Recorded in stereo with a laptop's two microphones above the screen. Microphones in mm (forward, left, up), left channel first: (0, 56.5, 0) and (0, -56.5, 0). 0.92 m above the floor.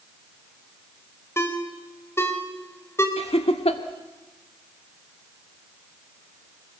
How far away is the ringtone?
About 3.5 m.